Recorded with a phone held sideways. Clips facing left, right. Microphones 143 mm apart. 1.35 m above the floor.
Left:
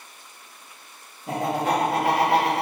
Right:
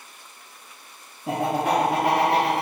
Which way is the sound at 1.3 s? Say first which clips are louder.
Right 1 dB; 65° right (ahead or behind).